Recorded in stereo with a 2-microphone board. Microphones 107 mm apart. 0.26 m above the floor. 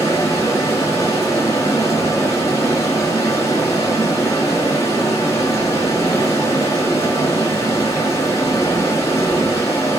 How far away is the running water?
About 3 m.